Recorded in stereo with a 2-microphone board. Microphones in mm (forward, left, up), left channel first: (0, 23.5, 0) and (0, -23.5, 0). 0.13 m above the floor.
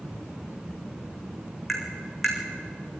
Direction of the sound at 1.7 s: 5° right (ahead or behind).